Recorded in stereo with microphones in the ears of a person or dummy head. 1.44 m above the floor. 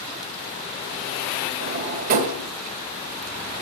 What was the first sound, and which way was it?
A drawer, 50° right (ahead or behind).